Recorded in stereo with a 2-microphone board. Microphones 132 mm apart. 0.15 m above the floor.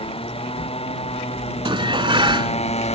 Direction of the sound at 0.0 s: 45° left (ahead or behind).